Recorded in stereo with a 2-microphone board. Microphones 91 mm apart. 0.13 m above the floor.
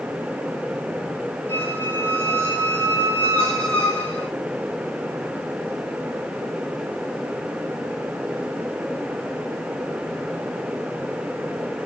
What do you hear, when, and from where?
1.5 s a squeak: 20° left (ahead or behind), 4 m